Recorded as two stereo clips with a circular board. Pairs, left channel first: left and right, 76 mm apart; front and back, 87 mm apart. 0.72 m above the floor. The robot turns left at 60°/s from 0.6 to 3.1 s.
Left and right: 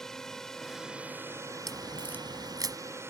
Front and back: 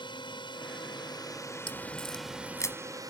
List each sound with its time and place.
0.0 s a drone: 5° left; by 3.1 s 145° right
1.7 s a crack: 5° left; by 2.8 s 60° right